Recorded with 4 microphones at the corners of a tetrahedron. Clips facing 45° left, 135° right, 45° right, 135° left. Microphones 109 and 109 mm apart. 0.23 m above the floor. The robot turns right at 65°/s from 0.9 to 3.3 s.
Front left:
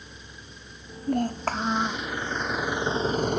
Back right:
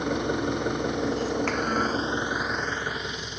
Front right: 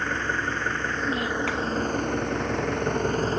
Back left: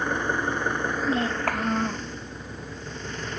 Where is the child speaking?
70° left; by 2.1 s 135° left.